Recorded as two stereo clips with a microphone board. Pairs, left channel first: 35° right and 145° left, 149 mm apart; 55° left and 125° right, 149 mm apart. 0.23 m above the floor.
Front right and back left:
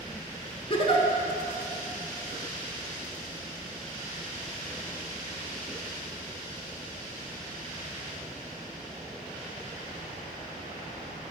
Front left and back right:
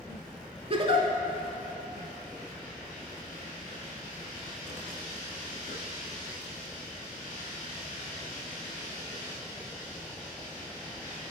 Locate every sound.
0.7 s a giggle: 80° right, 0.8 m